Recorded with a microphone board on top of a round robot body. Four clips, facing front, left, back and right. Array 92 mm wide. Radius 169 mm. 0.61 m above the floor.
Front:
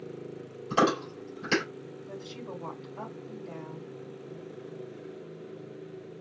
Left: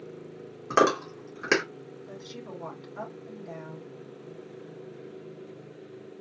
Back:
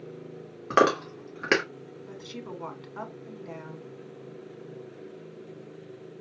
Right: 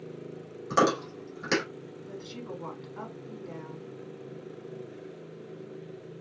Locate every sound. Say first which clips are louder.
0.7 s chewing: left 2 dB, back 3 dB; 155° left, 2 m
2.1 s a woman speaking: right 2 dB, back 1 dB; 175° left, 2.5 m